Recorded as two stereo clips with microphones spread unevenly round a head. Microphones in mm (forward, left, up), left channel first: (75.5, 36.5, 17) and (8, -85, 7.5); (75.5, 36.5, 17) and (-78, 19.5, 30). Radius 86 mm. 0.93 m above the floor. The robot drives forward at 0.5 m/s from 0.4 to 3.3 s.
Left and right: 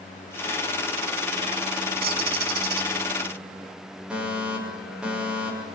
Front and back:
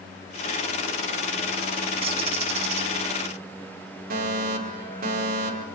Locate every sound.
2.0 s a bird: 115° right, 5 m; by 2.9 s 120° right, 5 m
4.1 s a fire alarm: 160° left, 5 m